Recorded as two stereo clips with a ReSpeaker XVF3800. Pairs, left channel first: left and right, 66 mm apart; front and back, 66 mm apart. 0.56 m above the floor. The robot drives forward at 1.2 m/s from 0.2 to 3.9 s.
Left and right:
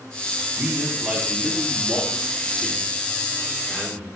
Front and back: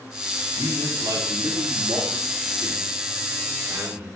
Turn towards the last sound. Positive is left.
turn(degrees=-175)